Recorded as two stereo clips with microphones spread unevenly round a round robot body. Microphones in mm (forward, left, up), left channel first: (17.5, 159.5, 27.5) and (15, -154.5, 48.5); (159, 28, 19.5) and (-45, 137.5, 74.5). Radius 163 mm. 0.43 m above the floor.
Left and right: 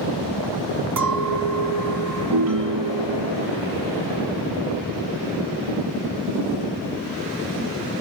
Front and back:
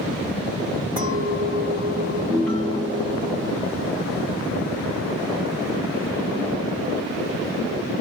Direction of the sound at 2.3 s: 115° right.